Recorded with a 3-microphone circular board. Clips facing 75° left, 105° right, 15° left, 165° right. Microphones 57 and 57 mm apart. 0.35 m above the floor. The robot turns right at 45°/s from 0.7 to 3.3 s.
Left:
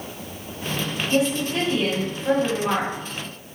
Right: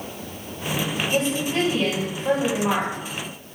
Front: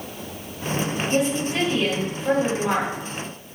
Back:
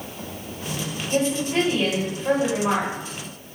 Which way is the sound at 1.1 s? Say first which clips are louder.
Left 3 dB, back 2 dB; 140° left.